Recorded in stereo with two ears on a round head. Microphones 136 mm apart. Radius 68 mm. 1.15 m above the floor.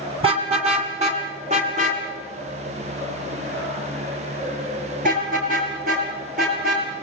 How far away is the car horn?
About 4 m.